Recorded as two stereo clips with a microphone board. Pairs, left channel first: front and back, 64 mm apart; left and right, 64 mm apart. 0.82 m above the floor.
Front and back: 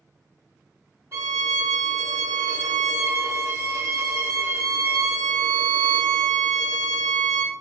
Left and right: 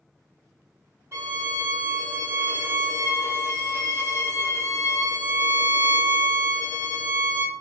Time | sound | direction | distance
1.1 | a violin | 140° right | 1.0 m